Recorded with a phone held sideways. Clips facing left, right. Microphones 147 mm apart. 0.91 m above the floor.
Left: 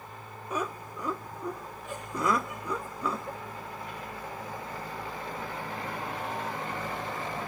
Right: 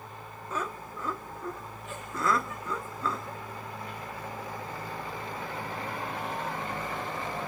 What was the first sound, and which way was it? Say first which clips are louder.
Laughter: left 2 dB; 15° left (ahead or behind).